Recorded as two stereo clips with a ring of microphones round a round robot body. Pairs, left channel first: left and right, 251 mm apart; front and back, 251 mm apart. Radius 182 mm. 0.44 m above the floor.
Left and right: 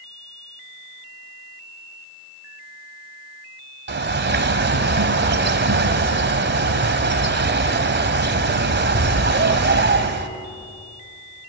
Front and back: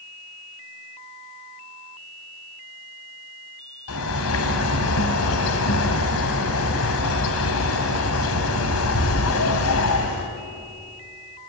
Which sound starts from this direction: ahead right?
A bird, at 3.9 s.